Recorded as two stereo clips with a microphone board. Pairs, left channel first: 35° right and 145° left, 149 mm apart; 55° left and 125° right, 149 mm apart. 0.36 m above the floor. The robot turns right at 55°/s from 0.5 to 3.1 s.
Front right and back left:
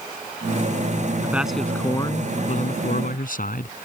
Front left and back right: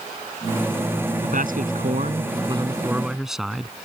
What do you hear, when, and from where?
1.2 s a man speaking: 140° right; by 3.9 s 35° right